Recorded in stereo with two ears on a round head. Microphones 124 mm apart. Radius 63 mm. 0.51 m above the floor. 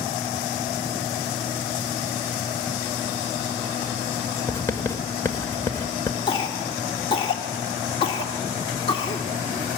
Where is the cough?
40° left (ahead or behind), 1.3 m.